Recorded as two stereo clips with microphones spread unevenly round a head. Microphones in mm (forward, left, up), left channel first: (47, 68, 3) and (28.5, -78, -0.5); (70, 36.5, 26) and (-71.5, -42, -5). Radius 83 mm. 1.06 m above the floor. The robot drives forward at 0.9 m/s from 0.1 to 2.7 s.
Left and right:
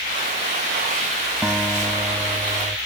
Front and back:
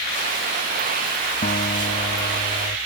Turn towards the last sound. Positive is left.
turn(degrees=-20)